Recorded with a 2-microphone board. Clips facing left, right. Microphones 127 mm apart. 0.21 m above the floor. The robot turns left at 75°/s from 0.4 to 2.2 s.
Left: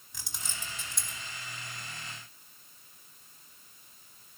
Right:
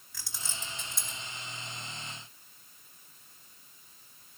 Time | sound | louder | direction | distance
0.1 | keys jangling | even | 20° left (ahead or behind) | 1.0 m